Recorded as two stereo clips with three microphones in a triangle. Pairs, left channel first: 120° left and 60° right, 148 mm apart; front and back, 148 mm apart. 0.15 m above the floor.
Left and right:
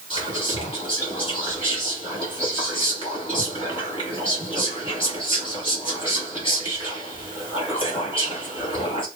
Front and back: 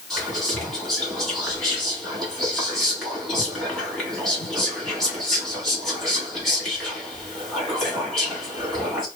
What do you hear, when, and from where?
0.1 s whispering: 90° left, 2 m